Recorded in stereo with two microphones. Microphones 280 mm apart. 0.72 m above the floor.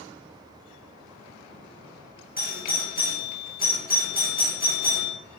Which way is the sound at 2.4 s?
30° left (ahead or behind).